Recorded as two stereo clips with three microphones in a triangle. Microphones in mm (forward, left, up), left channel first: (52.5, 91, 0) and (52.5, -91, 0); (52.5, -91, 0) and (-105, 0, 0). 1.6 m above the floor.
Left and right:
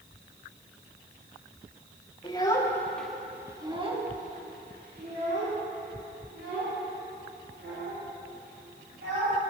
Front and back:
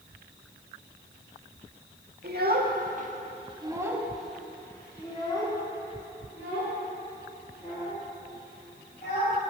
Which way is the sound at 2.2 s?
150° left.